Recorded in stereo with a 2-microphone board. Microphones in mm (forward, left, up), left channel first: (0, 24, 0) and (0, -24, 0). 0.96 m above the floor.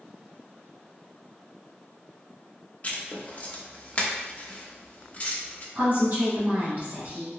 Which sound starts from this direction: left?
Writing, at 2.8 s.